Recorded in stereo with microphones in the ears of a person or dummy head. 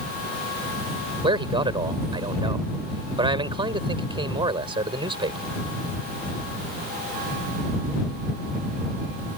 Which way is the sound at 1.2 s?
25° right (ahead or behind).